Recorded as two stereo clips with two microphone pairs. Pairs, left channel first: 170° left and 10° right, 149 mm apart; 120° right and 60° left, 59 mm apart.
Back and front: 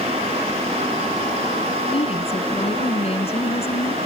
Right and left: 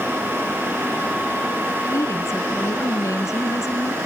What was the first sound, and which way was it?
A woman speaking, 145° right.